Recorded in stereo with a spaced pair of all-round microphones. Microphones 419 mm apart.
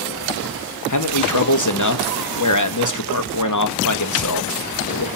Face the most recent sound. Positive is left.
turn(degrees=45)  # may be behind; listen again after turning